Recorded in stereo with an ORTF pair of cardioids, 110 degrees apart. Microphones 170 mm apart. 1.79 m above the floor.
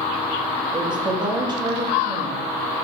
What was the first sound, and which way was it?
A woman speaking, 25° right.